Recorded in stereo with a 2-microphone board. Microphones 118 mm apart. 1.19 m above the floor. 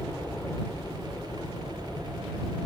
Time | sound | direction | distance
0.0 | a helicopter | 15° left (ahead or behind) | ?